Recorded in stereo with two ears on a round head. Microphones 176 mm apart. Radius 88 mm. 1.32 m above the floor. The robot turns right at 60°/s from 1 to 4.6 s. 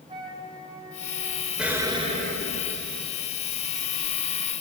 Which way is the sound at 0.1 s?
25° right (ahead or behind).